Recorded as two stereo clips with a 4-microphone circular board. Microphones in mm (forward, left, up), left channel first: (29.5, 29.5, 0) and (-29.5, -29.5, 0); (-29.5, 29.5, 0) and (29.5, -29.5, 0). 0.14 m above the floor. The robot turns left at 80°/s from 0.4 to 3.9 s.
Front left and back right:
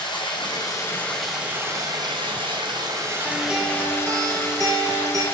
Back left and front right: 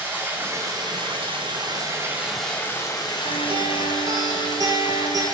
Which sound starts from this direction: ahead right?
A guitar, at 3.2 s.